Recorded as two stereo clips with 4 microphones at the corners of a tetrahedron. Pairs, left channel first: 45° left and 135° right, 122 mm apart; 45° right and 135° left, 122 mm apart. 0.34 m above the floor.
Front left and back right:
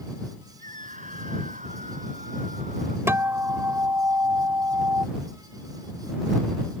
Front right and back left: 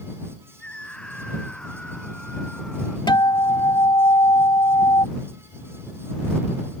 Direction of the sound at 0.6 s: 125° right.